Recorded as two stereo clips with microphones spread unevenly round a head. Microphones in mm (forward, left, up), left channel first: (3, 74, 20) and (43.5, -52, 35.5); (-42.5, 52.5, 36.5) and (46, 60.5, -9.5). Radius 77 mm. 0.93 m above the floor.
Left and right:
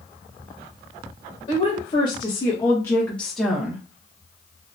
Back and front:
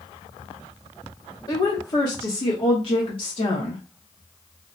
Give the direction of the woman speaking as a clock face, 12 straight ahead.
8 o'clock.